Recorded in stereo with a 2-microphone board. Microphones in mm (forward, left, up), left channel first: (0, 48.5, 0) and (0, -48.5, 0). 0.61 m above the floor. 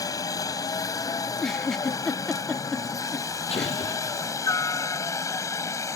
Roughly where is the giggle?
Centre.